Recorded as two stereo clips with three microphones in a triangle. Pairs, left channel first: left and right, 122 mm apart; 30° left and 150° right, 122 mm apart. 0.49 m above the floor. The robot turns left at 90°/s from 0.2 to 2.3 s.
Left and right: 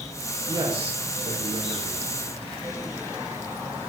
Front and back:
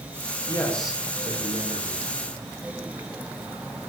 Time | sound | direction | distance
0.5 | a man speaking | 30° right | 5 m